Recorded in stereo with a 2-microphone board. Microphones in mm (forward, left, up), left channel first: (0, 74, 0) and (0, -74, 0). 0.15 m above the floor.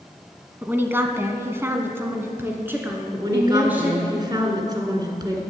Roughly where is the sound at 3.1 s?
Right.